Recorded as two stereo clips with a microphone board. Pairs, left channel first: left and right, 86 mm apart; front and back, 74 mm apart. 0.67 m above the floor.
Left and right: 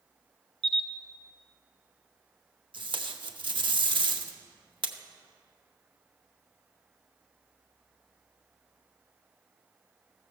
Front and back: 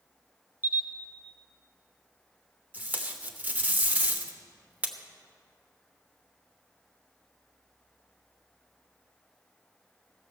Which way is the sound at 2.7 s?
115° right.